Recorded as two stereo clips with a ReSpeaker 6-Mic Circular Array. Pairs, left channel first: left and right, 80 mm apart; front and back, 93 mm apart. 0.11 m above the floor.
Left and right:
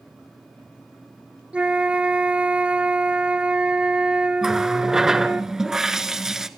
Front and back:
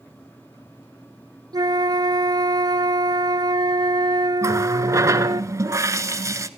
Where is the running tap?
170° right, 0.8 m.